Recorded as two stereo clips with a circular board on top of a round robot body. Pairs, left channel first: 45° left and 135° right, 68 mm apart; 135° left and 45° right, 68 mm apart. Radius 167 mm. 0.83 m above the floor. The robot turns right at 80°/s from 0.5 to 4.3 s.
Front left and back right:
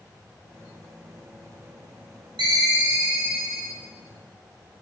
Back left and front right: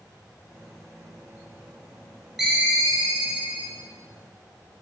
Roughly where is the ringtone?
Behind right.